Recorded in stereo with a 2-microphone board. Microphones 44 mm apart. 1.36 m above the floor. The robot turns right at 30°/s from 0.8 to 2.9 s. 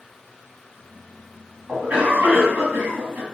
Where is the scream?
No scream in this recording.